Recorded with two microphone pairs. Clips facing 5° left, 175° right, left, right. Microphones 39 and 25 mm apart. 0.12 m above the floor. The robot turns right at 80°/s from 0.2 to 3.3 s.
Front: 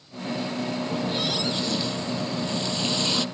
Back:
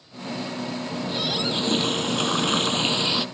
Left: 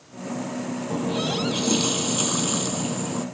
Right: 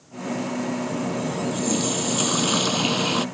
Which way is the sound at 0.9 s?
75° left.